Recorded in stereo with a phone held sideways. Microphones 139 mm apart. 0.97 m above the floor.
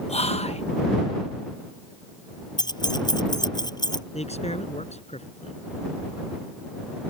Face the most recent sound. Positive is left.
turn(degrees=50)  # may be behind; listen again after turning